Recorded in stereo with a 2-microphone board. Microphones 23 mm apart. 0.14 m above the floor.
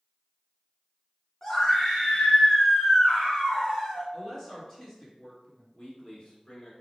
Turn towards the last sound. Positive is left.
turn(degrees=40)  # may be behind; listen again after turning